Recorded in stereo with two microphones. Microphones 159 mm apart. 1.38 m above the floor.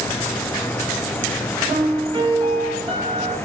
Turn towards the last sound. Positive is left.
turn(degrees=-30)  # may be behind; listen again after turning